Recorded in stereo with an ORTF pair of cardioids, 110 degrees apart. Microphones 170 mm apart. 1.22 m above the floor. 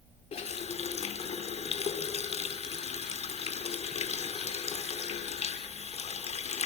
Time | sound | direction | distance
0.3 | a running tap | 40° left | 2.5 m